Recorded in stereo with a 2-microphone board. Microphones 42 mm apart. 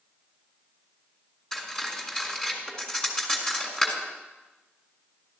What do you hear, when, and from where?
1.5 s cutlery clinking: 15° left (ahead or behind), 2 m